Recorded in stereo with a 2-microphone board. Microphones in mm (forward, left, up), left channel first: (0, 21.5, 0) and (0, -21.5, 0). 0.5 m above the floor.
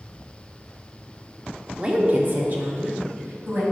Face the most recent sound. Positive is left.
turn(degrees=-65)  # may be behind; listen again after turning